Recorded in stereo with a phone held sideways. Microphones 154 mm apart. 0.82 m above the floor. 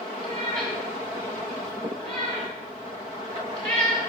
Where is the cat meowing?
5° left (ahead or behind), 4 m.